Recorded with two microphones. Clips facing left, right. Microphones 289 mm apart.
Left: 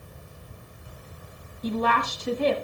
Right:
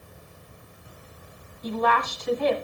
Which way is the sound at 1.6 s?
35° left (ahead or behind).